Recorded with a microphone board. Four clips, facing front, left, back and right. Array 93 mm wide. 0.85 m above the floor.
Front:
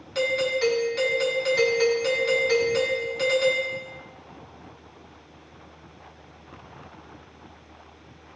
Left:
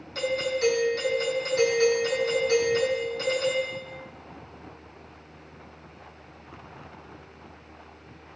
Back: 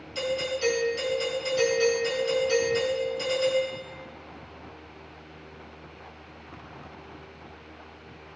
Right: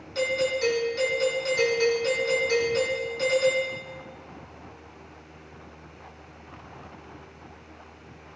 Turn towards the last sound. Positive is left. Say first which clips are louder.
# right 1 dB, front 5 dB
turn(degrees=0)